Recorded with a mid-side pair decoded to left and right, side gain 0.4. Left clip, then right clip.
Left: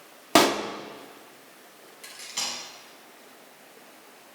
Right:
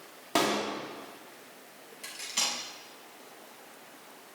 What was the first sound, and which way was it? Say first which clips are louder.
A pop: left 7 dB; 65° left.